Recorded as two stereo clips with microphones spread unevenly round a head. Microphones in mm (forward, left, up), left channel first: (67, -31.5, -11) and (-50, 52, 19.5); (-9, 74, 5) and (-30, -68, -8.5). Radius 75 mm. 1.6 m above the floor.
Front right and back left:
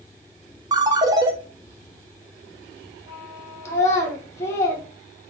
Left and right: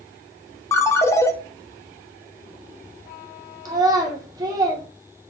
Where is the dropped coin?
No dropped coin in this recording.